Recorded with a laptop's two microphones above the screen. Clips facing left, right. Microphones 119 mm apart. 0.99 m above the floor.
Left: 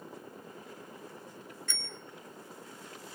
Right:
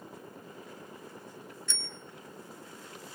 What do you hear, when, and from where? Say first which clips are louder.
1.7 s a bicycle bell: right 1 dB; 50° left (ahead or behind), 3.5 m